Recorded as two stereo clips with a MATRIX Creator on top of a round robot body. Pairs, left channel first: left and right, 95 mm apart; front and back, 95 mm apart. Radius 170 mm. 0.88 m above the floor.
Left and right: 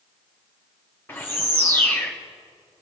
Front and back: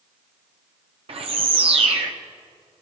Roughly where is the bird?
Behind.